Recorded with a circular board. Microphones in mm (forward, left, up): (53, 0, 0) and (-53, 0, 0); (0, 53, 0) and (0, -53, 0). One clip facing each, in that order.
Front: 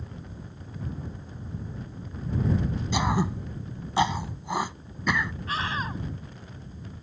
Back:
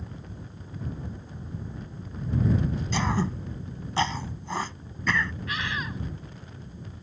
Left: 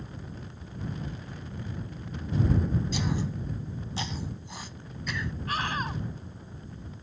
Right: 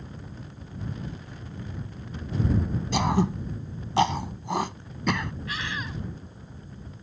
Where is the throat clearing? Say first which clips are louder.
Front 3 dB, right 7 dB; 75° right.